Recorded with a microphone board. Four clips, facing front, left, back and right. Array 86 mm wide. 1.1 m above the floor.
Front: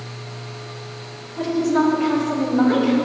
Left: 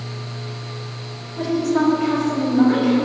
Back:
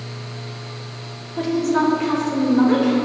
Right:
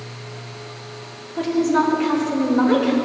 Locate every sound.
1.4 s a woman speaking: 130° right, 3 m; by 3.0 s 105° right, 4.5 m